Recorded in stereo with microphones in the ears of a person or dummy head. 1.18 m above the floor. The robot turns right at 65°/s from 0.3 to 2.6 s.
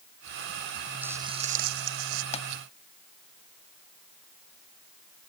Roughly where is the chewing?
I don't hear chewing.